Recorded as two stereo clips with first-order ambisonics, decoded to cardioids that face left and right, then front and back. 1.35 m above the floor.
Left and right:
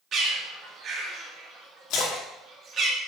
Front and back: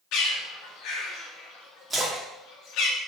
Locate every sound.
0.1 s a bird: 35° right, 1.4 m
1.9 s a splash: 105° left, 1.3 m